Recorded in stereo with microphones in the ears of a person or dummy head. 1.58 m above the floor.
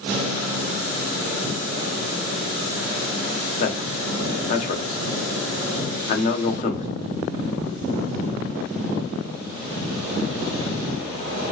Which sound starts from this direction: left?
A man speaking, at 3.6 s.